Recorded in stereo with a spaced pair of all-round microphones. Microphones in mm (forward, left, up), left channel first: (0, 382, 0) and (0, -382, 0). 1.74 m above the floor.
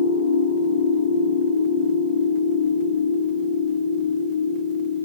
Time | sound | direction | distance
0.0 | a machine running | 60° left (ahead or behind) | 0.8 m